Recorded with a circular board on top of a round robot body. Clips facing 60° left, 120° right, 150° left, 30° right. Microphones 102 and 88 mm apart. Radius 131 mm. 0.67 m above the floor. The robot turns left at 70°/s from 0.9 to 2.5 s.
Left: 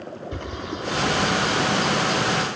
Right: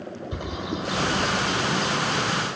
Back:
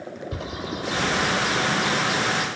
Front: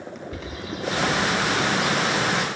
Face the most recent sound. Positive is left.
turn(degrees=55)